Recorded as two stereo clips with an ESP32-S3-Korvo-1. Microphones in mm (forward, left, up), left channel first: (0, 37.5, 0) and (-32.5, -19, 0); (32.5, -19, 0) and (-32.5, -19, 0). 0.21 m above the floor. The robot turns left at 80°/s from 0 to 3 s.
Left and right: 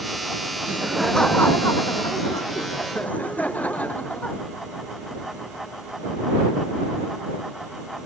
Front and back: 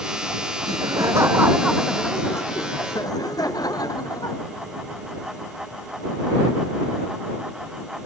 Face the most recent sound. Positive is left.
turn(degrees=-10)